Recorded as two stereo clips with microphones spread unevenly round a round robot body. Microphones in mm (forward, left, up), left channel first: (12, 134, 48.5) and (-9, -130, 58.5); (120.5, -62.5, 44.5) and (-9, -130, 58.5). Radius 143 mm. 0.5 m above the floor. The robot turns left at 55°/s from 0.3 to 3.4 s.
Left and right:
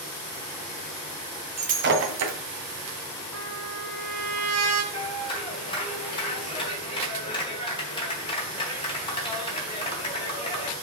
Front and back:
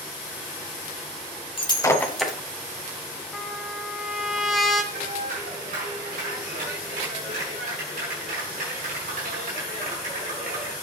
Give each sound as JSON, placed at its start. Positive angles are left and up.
{"t": 1.6, "sound": "breaking glass", "azimuth_deg": -25, "distance_m": 2.0}
{"t": 3.3, "sound": "a trumpet", "azimuth_deg": -60, "distance_m": 2.5}
{"t": 4.9, "sound": "a clap", "azimuth_deg": 155, "distance_m": 3.5}